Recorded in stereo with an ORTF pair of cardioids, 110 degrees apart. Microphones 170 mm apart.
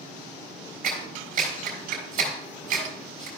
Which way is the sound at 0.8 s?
65° right.